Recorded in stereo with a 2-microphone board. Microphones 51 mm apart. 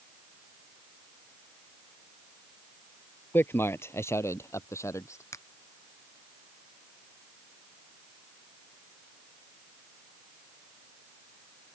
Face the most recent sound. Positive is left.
turn(degrees=70)  # may be behind; listen again after turning